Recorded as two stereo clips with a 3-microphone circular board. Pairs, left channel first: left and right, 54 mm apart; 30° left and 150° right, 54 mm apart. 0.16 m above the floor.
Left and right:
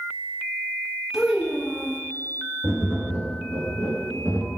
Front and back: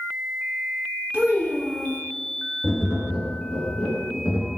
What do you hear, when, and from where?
1.1 s a child speaking: 165° right, 0.9 m
2.6 s tapping: 85° right, 1.4 m